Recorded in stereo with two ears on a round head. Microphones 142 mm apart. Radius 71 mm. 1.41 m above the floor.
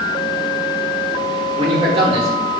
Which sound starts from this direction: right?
A man speaking, at 1.6 s.